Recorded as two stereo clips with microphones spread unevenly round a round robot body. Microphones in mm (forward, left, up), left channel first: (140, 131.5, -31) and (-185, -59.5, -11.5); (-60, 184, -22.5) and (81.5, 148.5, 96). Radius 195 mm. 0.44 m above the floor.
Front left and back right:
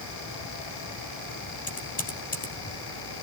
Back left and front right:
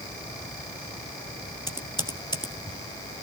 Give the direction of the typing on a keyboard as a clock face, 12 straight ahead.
9 o'clock.